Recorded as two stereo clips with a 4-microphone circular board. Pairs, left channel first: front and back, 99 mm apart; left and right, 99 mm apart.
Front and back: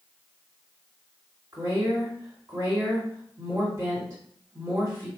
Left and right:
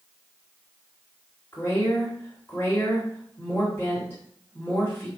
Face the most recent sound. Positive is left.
turn(degrees=145)